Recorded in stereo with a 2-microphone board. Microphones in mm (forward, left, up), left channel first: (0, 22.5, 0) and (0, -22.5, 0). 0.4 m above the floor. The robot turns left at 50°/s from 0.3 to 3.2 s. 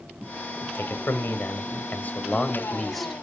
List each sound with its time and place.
0.8 s a man speaking: 115° left, 1.8 m; by 3.2 s 5° right, 1.8 m